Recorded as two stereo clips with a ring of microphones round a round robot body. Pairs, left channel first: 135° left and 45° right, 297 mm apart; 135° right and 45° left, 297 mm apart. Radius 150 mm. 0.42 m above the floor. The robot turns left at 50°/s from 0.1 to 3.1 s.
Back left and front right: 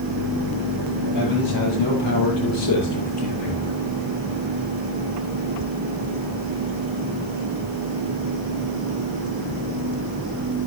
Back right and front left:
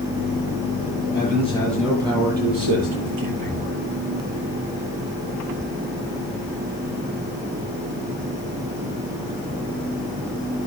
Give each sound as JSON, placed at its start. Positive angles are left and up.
{"t": 1.1, "sound": "a man speaking", "azimuth_deg": 165, "distance_m": 8.5}